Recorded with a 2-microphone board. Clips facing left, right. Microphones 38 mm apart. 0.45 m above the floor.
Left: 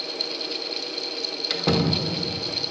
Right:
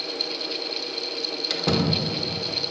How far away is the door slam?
About 1.0 m.